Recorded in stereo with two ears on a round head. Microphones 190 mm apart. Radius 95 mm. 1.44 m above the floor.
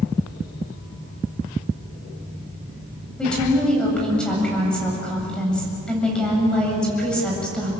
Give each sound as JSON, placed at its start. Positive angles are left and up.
{"t": 3.2, "sound": "a woman speaking", "side_deg": 5, "distance_m": 7.5}